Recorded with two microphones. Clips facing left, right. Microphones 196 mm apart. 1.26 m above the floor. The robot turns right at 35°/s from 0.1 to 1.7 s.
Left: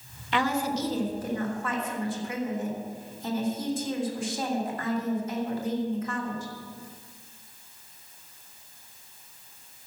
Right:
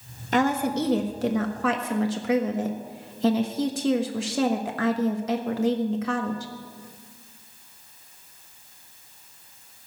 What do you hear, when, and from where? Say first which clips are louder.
0.3 s a woman speaking: right 4 dB; 140° right, 1.2 m; by 6.5 s 90° right, 1.2 m